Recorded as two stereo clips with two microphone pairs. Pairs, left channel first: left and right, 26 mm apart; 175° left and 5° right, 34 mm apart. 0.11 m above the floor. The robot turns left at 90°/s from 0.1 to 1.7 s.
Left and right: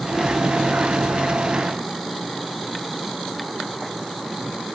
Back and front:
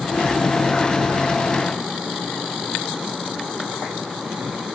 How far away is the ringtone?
I don't hear a ringtone.